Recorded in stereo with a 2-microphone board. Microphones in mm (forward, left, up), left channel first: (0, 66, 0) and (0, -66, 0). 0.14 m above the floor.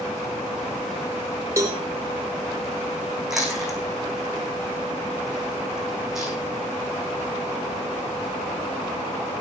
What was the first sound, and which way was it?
A cowbell, 20° right (ahead or behind).